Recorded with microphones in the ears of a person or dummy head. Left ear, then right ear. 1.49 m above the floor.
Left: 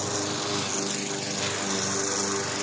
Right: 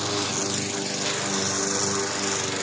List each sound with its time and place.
Only background noise.